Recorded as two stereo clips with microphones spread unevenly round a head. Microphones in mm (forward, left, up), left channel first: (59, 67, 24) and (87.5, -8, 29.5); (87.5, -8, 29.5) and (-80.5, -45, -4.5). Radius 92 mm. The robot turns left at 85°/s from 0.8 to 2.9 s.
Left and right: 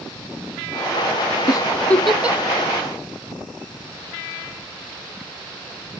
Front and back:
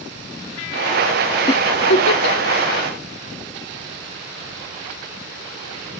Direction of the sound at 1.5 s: 75° left.